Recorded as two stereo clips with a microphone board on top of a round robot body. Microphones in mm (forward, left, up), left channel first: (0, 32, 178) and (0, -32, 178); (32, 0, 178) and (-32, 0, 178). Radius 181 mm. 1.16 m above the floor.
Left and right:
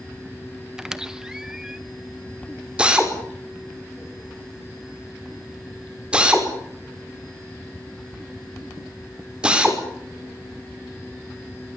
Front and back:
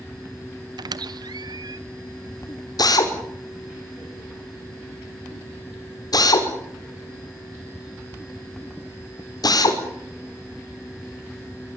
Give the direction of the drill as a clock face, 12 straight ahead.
12 o'clock.